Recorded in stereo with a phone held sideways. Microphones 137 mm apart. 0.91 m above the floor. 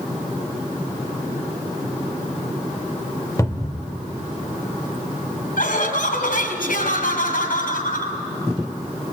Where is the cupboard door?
25° left (ahead or behind), 1.3 m.